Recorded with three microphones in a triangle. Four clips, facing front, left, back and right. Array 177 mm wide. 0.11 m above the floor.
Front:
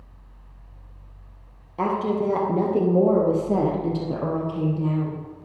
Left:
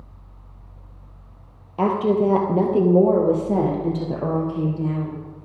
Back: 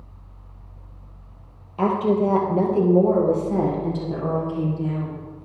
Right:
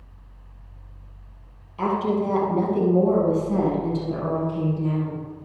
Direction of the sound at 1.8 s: 80° left.